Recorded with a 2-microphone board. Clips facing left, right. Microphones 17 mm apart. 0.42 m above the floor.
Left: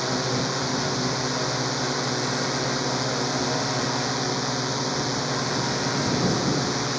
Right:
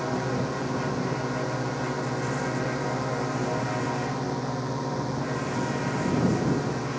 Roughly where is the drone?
Left.